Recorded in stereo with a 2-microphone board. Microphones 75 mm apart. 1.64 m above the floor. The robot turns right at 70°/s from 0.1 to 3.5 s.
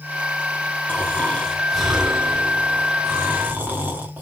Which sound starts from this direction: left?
Snoring, at 0.9 s.